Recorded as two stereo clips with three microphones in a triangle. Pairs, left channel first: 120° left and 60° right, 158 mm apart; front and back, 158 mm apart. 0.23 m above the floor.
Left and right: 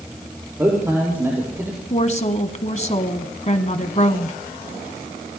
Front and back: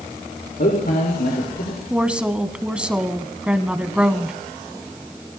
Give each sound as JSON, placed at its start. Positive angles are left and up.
{"t": 0.6, "sound": "a man speaking", "azimuth_deg": 15, "distance_m": 6.0}
{"t": 1.9, "sound": "a woman speaking", "azimuth_deg": 100, "distance_m": 1.5}